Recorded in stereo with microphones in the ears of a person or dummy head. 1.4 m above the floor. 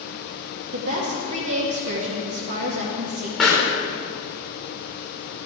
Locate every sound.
0.7 s a woman speaking: 85° right, 1.9 m
3.4 s a pop: centre (ahead or behind), 3.5 m